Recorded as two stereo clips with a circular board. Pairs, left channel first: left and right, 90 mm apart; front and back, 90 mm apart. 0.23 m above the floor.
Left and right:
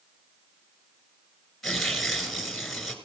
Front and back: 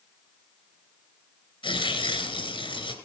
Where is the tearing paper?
Straight ahead, 3 m.